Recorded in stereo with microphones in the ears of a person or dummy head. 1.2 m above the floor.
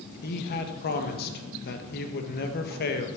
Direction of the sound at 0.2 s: 55° left (ahead or behind).